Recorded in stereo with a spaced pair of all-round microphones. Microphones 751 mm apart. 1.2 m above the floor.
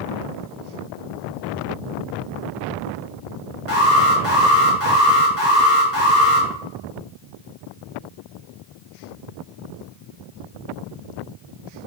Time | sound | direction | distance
3.7 | an alarm | 15° left (ahead or behind) | 2.5 m